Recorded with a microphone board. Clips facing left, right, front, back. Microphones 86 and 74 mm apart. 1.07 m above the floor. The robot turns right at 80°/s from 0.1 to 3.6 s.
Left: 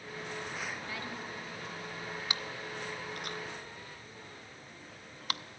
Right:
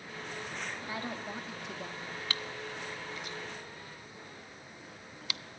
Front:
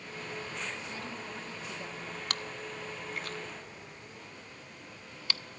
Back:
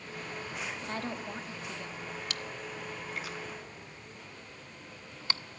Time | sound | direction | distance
0.8 | a woman speaking | 160° right | 2.5 m
2.3 | chewing | 20° left | 0.6 m